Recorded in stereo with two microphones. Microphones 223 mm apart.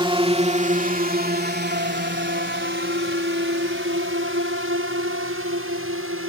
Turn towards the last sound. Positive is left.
turn(degrees=-75)  # may be behind; listen again after turning